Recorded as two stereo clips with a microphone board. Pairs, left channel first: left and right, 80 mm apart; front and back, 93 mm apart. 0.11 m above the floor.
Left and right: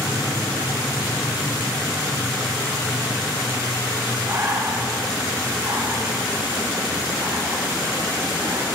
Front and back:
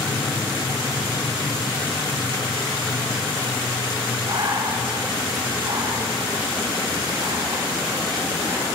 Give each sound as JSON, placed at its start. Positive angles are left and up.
{"t": 4.3, "sound": "breathing", "azimuth_deg": -140, "distance_m": 6.5}